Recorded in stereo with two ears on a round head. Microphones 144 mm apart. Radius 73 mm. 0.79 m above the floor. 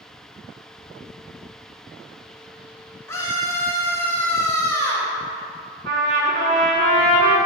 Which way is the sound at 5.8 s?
70° right (ahead or behind).